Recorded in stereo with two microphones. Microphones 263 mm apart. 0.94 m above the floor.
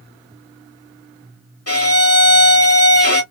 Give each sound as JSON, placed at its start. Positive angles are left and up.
{"t": 1.7, "sound": "a violin", "side_deg": 60, "distance_m": 1.4}